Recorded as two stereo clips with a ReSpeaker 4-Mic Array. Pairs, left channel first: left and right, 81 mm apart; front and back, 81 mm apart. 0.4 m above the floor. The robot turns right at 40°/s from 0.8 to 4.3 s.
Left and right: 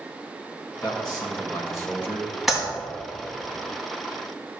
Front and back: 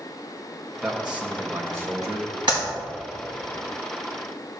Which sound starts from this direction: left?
A man speaking, at 0.8 s.